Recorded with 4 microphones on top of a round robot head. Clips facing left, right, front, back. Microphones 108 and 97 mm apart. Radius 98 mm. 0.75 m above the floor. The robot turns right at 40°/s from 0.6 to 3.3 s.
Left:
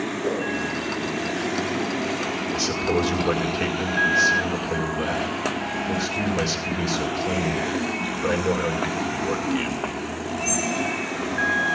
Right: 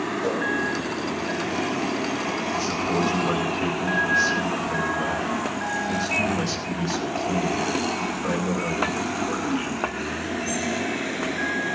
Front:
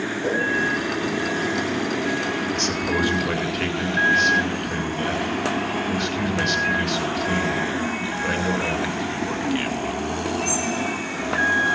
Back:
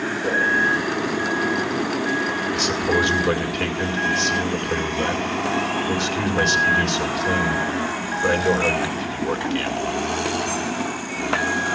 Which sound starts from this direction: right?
A whoosh, at 0.2 s.